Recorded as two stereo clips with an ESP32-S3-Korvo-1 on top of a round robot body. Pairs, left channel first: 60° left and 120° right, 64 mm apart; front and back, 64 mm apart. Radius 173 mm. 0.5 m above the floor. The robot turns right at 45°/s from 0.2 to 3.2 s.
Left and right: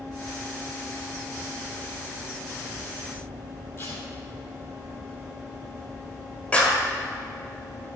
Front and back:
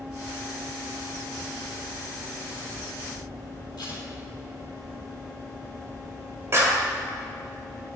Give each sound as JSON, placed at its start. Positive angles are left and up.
{"t": 3.8, "sound": "tape being pulled", "azimuth_deg": 10, "distance_m": 3.5}
{"t": 6.5, "sound": "a clap", "azimuth_deg": 130, "distance_m": 2.0}